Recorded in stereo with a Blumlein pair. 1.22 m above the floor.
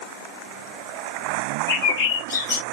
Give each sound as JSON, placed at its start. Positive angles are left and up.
{"t": 1.7, "sound": "a bird", "azimuth_deg": 55, "distance_m": 1.1}